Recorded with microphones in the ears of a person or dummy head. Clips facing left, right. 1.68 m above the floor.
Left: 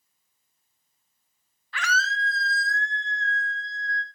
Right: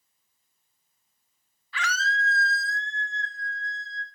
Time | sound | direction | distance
1.7 | a scream | 50° left (ahead or behind) | 1.6 m